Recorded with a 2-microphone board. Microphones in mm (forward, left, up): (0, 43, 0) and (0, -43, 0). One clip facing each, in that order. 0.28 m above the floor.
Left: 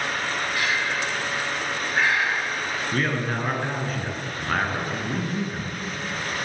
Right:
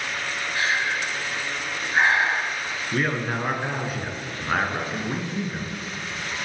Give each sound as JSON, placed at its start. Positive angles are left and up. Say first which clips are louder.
{"t": 0.6, "sound": "breathing", "louder": "right 3 dB", "side_deg": -30, "distance_m": 1.4}
{"t": 2.9, "sound": "a man speaking", "louder": "right 2 dB", "side_deg": -5, "distance_m": 3.0}